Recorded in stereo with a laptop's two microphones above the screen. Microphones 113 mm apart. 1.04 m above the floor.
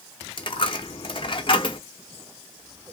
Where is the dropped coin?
45° left (ahead or behind), 0.8 m.